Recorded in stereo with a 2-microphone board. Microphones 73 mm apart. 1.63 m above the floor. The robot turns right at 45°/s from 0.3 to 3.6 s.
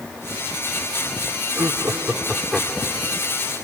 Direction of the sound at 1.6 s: 45° right.